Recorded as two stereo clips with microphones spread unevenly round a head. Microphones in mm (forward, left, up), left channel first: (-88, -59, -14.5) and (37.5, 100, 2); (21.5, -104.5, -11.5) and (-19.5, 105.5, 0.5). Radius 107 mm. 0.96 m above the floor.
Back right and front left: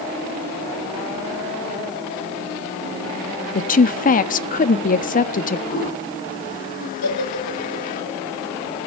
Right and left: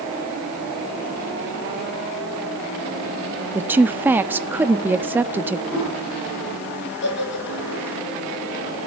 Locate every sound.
3.5 s a woman speaking: 175° right, 1.3 m
5.7 s a toilet flushing: 175° right, 7.5 m
7.0 s a giggle: 120° right, 8.5 m